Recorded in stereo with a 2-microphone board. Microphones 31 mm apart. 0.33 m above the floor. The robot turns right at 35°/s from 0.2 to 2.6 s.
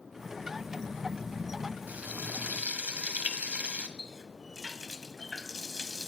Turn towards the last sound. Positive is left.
turn(degrees=10)  # may be behind; listen again after turning